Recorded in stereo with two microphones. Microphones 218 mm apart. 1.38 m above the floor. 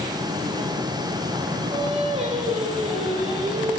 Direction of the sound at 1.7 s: 30° right (ahead or behind).